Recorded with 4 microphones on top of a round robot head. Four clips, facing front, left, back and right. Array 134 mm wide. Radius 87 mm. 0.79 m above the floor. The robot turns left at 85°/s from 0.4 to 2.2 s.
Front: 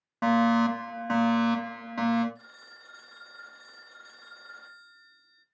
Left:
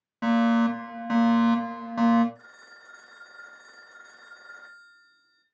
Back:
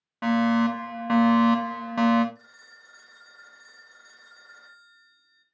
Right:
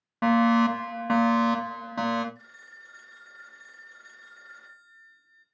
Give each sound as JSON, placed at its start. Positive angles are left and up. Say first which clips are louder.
{"t": 0.2, "sound": "a fire alarm", "louder": "right 1 dB, back 1 dB", "azimuth_deg": -60, "distance_m": 1.6}
{"t": 2.4, "sound": "a phone ringing", "louder": "left 1 dB, front 2 dB", "azimuth_deg": 65, "distance_m": 0.6}